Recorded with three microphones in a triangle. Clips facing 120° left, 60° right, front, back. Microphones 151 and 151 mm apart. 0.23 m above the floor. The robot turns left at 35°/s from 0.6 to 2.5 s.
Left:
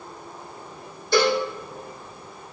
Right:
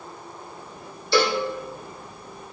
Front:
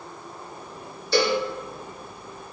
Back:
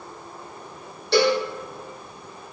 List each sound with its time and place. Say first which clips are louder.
1.1 s a cowbell: left 1 dB, back 3 dB; 160° left, 5 m; by 1.4 s 150° left, 5 m